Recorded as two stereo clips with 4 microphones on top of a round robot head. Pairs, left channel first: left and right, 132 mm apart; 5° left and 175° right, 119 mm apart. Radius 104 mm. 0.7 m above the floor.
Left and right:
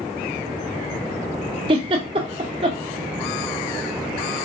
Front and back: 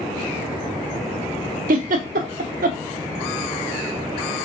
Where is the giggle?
150° right, 0.6 m.